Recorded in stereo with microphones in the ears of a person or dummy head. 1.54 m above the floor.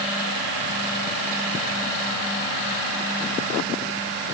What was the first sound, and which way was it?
Only background noise.